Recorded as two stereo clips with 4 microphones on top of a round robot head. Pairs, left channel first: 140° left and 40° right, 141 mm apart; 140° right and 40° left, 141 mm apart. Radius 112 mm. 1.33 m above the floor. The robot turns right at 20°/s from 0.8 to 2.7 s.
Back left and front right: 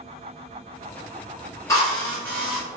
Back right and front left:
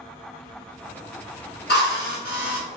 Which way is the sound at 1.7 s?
150° right.